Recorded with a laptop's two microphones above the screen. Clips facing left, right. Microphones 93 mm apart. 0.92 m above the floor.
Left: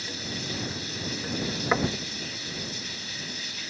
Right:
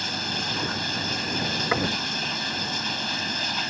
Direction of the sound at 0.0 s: 70° right (ahead or behind).